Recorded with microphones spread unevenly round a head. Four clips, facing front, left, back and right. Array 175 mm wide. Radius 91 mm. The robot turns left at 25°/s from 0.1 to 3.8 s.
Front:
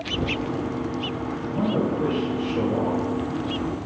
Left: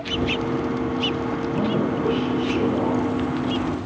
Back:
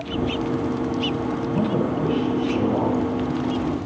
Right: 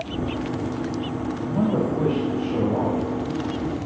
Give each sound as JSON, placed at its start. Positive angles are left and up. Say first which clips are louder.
{"t": 1.4, "sound": "a man speaking", "louder": "right 2 dB, even", "azimuth_deg": -115, "distance_m": 5.0}